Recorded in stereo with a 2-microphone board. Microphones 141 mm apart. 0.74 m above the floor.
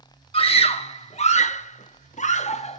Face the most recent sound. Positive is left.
turn(degrees=50)  # may be behind; listen again after turning